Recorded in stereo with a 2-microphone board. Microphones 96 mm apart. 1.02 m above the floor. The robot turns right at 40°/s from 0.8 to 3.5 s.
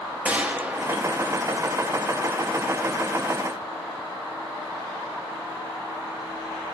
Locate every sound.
0.2 s a gunshot: 10° right (ahead or behind), 0.8 m; by 1.4 s 25° right (ahead or behind), 0.8 m